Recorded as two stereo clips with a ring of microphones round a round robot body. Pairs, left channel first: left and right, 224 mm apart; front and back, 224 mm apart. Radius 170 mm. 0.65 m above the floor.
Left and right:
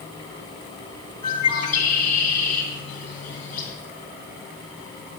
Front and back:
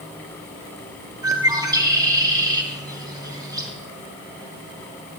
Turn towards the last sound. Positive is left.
turn(degrees=105)